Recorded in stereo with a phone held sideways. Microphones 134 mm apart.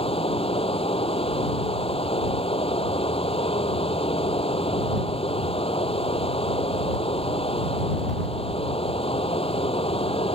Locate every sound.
0.0 s running water: 45° left (ahead or behind)